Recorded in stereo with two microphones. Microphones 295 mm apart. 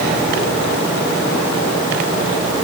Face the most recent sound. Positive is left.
No sound to turn to.